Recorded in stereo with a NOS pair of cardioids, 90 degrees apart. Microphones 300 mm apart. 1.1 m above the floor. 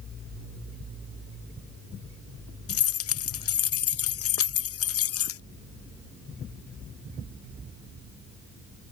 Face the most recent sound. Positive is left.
turn(degrees=50)